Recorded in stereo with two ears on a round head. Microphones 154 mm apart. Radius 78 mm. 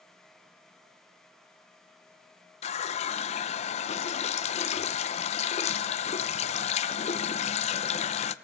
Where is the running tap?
40° left (ahead or behind), 0.5 m.